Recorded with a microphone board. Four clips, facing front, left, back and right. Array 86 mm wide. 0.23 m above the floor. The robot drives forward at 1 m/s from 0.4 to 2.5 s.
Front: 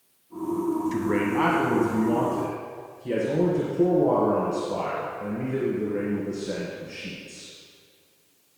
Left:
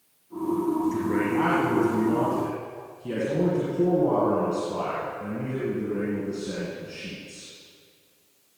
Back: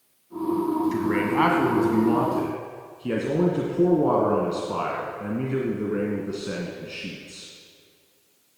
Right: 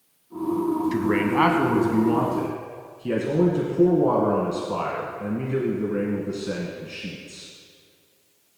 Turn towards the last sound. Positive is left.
turn(degrees=-145)